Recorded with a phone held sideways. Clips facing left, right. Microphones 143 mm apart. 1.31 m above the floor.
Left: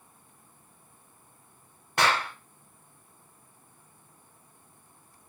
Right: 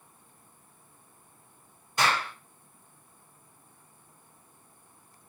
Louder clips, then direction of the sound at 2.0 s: Left 2 dB; 65° left (ahead or behind).